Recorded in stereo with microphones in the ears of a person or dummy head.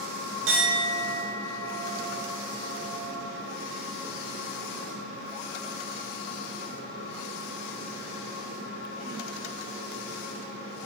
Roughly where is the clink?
Right.